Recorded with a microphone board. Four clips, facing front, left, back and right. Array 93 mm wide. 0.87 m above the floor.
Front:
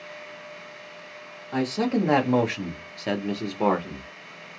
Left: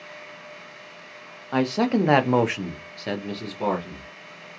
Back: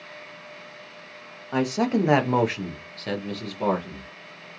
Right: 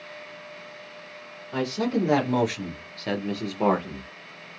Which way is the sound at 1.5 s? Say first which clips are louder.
Left 4 dB, back 1 dB; 110° left.